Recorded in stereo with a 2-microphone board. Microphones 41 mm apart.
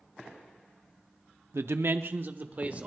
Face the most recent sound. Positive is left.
turn(degrees=-35)  # may be behind; listen again after turning